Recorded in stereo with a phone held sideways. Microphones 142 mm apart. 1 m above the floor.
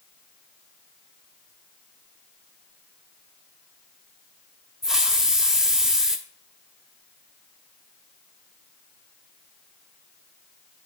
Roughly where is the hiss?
Centre.